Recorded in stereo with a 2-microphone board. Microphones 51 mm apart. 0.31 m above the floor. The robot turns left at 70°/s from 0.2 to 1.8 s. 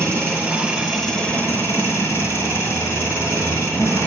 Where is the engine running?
125° right, 5.5 m; by 4.1 s 120° left, 5.5 m.